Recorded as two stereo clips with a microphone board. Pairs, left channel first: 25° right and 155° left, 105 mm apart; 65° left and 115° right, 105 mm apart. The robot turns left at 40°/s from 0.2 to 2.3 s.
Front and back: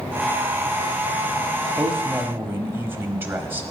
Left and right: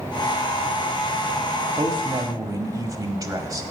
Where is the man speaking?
125° right, 1.1 m; by 3.6 s 145° right, 1.1 m.